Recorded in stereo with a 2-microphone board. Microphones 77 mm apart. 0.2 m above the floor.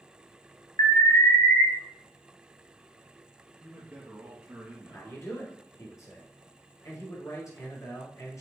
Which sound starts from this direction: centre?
A man speaking, at 3.6 s.